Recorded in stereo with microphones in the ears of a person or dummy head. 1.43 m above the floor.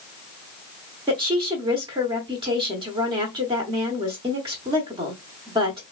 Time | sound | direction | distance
1.1 | a woman speaking | 25° right (ahead or behind) | 0.8 m